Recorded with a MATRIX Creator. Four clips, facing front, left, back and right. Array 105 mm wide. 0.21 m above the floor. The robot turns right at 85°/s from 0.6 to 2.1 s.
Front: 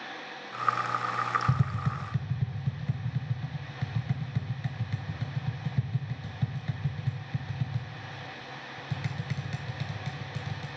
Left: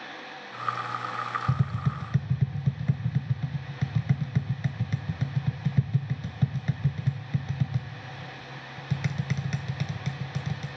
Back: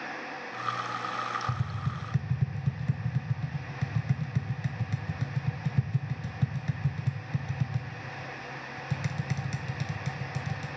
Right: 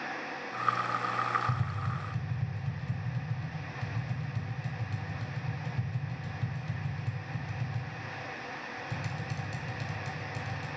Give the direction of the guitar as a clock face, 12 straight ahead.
No guitar in this recording.